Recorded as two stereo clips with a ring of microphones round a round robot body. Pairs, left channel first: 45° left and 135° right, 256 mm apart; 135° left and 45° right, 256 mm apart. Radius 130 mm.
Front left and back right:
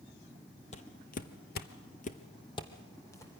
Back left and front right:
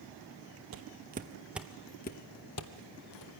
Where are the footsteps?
15° right, 1.1 m; by 3.4 s 125° left, 1.8 m.